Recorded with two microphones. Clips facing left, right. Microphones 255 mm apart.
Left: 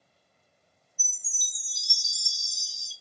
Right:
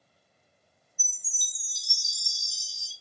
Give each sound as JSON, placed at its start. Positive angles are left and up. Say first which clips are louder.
{"t": 1.0, "sound": "a chime", "louder": "even", "side_deg": 45, "distance_m": 1.9}